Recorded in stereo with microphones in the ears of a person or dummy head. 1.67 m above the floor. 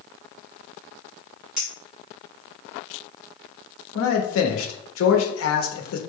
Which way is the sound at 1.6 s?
Centre (ahead or behind).